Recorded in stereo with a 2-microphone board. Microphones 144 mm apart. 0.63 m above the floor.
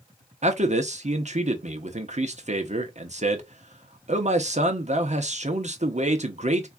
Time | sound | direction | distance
0.4 | a man speaking | 50° right (ahead or behind) | 0.8 m